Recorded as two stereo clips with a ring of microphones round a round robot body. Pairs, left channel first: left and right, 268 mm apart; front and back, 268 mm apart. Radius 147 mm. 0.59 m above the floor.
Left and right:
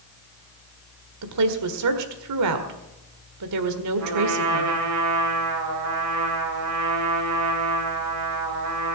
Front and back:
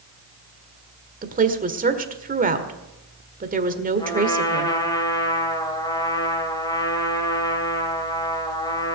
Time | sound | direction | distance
1.2 | a woman speaking | 120° right | 1.6 m
4.0 | a trumpet | 75° right | 3 m